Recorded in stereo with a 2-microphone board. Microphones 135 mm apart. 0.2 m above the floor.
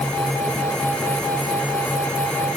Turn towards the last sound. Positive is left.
No sound to turn to.